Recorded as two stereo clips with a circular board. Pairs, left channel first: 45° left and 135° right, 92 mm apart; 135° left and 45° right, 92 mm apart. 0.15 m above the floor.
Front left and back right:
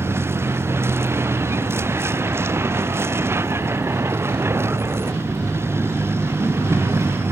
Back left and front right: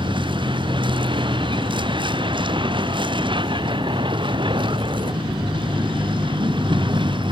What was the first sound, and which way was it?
A vehicle, 70° right.